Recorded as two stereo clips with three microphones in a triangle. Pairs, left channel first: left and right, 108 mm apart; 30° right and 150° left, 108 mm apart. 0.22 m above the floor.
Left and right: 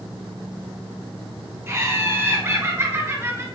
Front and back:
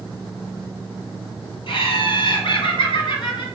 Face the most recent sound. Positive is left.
turn(degrees=-30)